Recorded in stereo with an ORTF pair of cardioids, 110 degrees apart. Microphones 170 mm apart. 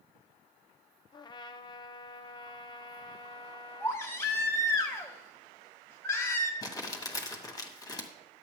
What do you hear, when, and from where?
1.1 s a trumpet: 25° left, 0.8 m
3.8 s a baby crying: 15° left, 1.5 m
6.6 s crumpling: 20° left, 1.8 m